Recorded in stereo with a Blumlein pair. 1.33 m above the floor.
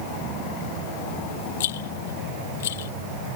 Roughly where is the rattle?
Ahead left.